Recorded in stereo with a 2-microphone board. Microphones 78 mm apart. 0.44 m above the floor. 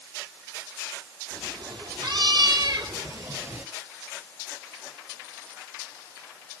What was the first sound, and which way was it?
A cat meowing, 70° right (ahead or behind).